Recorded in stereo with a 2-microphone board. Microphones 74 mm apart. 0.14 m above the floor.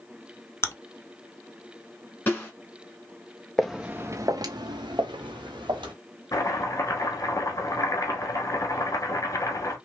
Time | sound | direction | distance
0.6 | chewing | 35° left (ahead or behind) | 0.6 m
2.3 | a snare drum | 25° left (ahead or behind) | 1.4 m
3.6 | footsteps | 5° left (ahead or behind) | 0.7 m
6.3 | chopping | 45° left (ahead or behind) | 1.1 m